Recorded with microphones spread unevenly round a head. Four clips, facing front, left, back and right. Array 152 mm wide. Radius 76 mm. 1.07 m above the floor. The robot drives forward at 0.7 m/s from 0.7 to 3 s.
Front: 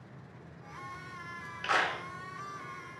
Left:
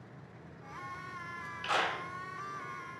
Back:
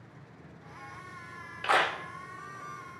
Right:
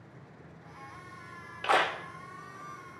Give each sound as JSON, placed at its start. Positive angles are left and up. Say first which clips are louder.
{"t": 1.6, "sound": "a clap", "louder": "right 6 dB, back 4 dB", "azimuth_deg": -105, "distance_m": 1.0}